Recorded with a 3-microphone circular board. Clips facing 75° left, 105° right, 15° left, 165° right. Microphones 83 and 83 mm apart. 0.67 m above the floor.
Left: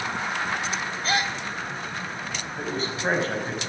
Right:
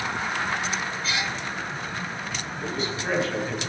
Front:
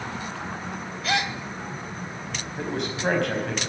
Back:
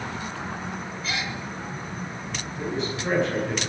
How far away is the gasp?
About 0.8 m.